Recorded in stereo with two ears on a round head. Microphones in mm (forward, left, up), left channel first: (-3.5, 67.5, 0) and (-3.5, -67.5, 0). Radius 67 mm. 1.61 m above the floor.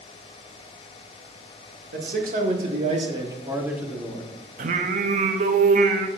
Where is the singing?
55° right (ahead or behind), 0.7 m.